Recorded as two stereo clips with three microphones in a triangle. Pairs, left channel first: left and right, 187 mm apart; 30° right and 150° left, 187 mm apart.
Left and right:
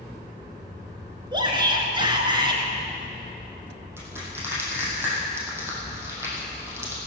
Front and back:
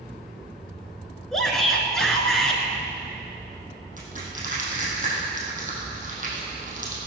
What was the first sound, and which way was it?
A shout, 115° right.